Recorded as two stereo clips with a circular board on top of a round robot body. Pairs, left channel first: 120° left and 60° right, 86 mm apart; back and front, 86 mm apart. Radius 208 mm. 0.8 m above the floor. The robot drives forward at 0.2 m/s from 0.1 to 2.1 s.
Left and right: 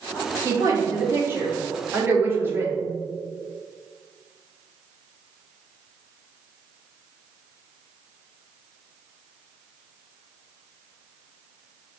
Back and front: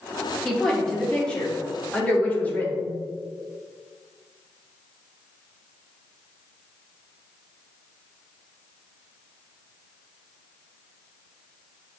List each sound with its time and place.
0.5 s a woman speaking: 90° right, 1.2 m; by 2.9 s 115° right, 1.3 m